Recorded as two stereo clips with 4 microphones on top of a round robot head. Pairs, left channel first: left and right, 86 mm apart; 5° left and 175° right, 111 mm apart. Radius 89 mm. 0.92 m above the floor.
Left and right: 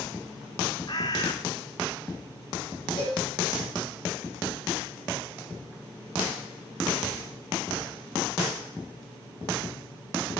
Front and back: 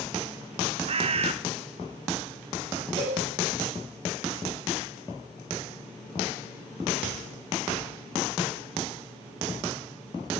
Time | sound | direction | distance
0.9 | a bird | 155° left | 0.8 m
3.0 | a cowbell | 145° left | 5.5 m